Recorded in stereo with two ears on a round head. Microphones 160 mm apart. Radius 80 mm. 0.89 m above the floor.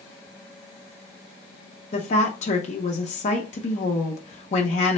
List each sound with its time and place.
1.9 s a woman speaking: 40° left (ahead or behind), 0.8 m